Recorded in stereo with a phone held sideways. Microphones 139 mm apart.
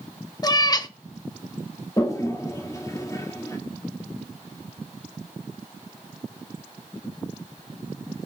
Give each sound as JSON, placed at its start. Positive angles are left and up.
{"t": 0.4, "sound": "a cat meowing", "side_deg": 30, "distance_m": 0.5}
{"t": 2.0, "sound": "a toilet flushing", "side_deg": 25, "distance_m": 1.3}